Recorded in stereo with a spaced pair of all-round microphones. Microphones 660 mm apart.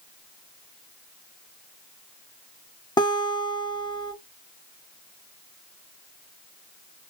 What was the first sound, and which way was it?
A guitar, 5° left (ahead or behind).